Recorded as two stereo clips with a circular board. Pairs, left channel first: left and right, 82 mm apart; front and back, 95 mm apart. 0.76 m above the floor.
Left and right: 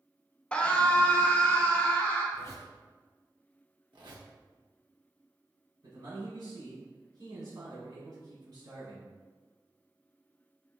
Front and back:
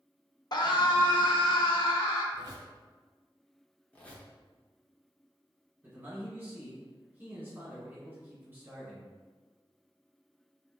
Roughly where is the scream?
Ahead.